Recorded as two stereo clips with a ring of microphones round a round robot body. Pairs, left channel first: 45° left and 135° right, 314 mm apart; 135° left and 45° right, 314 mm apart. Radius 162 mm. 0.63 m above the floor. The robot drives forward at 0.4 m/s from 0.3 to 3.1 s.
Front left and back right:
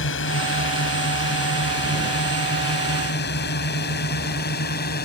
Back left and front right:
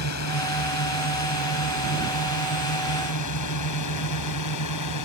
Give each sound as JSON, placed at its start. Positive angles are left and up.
{"t": 0.0, "sound": "a drone", "azimuth_deg": 95}